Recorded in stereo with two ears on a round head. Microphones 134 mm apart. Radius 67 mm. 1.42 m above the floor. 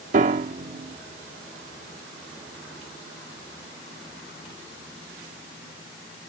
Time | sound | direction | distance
0.1 | a piano | 50° right (ahead or behind) | ?